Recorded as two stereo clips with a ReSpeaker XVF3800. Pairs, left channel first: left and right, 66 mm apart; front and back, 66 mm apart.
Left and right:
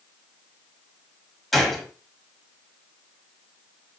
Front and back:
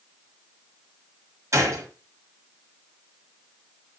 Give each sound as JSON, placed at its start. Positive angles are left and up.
{"t": 1.5, "sound": "a gunshot", "azimuth_deg": 175, "distance_m": 1.7}